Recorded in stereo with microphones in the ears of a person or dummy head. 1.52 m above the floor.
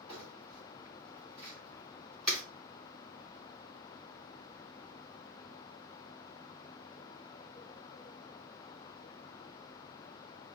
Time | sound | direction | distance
0.1 | crumpling | 5° left (ahead or behind) | 2.5 m